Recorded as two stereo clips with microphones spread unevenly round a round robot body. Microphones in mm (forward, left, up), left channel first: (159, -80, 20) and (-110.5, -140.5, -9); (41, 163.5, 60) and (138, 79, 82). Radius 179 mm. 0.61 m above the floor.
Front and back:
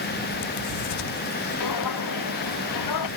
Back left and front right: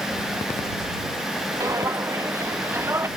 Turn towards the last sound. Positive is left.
turn(degrees=30)